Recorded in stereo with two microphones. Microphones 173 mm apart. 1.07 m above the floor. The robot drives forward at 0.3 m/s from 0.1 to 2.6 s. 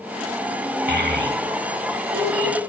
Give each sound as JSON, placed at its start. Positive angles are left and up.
{"t": 0.9, "sound": "a child speaking", "side_deg": -70, "distance_m": 3.0}